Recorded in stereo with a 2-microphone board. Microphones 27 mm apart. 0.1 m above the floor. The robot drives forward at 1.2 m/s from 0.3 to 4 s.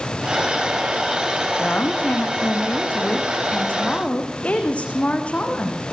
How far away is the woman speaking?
About 5.5 m.